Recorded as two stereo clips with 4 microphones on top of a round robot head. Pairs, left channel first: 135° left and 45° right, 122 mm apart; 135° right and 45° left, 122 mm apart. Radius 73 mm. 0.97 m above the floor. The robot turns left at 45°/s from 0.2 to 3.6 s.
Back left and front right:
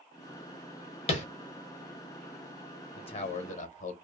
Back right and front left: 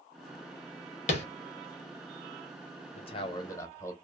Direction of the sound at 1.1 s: 175° right.